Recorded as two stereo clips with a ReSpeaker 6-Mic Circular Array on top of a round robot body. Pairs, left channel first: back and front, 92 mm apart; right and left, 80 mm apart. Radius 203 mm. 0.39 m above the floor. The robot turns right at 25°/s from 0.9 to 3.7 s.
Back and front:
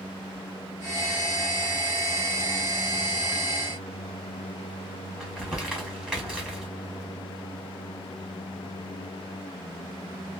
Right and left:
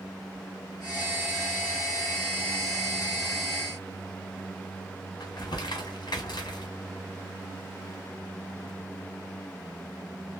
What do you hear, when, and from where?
5.2 s crumpling: 80° right, 1.7 m